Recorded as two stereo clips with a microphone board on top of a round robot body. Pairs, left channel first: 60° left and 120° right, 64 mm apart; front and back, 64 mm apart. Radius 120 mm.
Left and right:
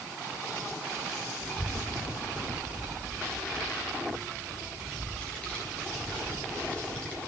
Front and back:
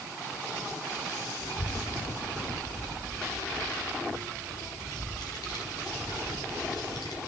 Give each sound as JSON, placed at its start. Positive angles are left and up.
{"t": 1.4, "sound": "a child speaking", "azimuth_deg": -15, "distance_m": 4.0}